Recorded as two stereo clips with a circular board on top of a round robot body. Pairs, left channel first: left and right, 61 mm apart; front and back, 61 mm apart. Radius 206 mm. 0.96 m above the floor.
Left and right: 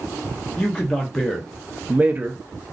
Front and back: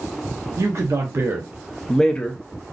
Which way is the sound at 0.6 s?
160° left.